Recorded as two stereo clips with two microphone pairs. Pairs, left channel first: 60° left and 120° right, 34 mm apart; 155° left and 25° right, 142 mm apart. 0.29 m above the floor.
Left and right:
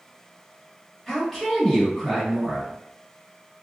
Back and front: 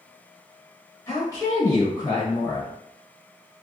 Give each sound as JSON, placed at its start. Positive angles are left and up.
{"t": 1.1, "sound": "a woman speaking", "azimuth_deg": 140, "distance_m": 1.1}